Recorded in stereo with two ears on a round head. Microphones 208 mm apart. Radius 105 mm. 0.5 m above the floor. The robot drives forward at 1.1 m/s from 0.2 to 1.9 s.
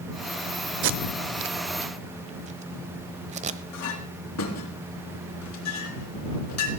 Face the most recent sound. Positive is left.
turn(degrees=85)